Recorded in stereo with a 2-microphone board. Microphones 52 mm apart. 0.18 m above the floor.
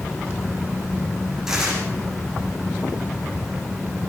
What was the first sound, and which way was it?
Tearing paper, 5° right (ahead or behind).